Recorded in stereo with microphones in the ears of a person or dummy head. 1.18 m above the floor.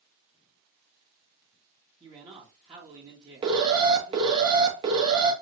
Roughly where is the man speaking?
Right.